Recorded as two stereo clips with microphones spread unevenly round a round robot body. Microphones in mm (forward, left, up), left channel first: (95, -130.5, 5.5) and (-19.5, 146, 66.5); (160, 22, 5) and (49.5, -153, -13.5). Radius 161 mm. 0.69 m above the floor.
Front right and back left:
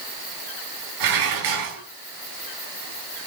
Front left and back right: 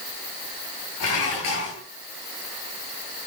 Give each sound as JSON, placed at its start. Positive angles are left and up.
{"t": 1.0, "sound": "dishes clattering", "azimuth_deg": 105, "distance_m": 5.0}